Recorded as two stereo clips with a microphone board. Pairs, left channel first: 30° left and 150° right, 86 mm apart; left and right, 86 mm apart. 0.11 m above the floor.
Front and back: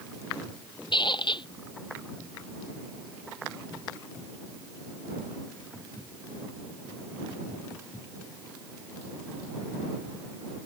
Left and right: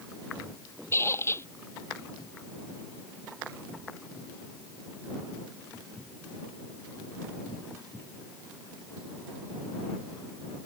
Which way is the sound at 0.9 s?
35° left.